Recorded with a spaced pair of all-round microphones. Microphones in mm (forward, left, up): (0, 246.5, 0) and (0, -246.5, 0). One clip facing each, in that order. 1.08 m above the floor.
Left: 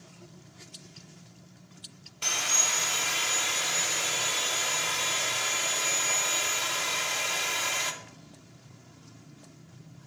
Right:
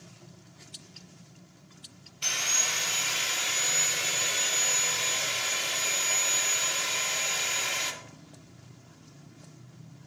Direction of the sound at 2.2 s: 70° left (ahead or behind).